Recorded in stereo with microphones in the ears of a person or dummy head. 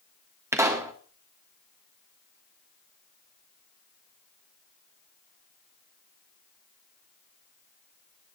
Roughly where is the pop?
Centre.